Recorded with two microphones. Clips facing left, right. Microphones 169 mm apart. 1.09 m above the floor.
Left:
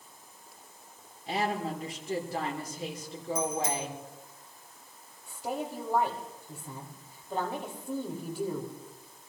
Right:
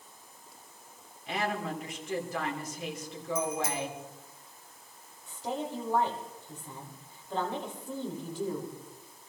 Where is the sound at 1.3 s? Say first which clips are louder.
Left 2 dB; 35° left (ahead or behind), 3.5 m.